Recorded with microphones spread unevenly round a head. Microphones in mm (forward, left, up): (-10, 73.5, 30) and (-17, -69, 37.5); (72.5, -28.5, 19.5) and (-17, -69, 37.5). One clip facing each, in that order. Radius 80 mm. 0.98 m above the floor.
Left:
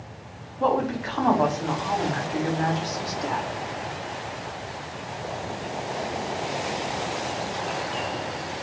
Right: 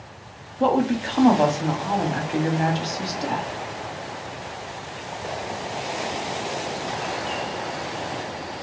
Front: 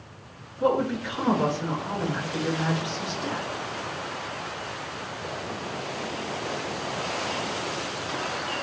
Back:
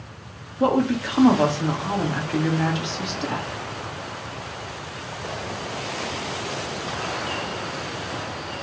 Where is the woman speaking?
155° right, 2 m.